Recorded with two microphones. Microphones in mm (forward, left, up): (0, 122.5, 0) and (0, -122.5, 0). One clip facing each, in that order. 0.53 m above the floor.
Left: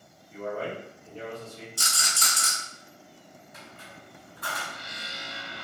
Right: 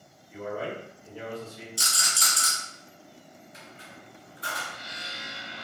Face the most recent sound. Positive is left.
turn(degrees=80)